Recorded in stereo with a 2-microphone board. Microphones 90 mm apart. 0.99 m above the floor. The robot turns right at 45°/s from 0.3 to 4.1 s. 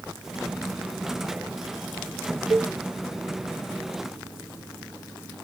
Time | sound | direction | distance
2.5 | a cowbell | 60° right (ahead or behind) | 0.6 m